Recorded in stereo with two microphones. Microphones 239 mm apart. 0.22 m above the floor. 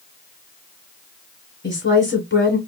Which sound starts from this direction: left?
A woman speaking, at 1.6 s.